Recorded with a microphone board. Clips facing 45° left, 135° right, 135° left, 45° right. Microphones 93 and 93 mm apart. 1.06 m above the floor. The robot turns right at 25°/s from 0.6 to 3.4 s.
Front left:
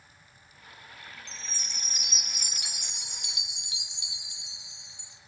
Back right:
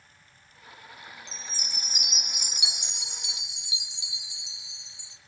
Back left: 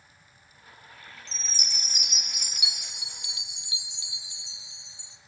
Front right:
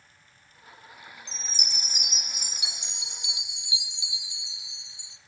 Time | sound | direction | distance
1.3 | a chime | 30° right | 1.8 m